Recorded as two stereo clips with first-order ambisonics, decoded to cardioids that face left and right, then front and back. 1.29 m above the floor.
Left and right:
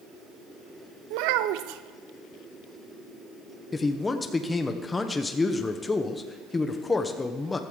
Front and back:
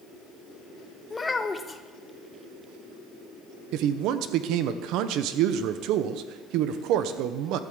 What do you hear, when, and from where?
1.1 s a child speaking: 75° right, 0.7 m
3.7 s a man speaking: 165° left, 0.8 m